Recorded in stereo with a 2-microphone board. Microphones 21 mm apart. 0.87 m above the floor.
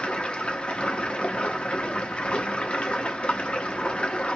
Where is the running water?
80° left, 0.9 m.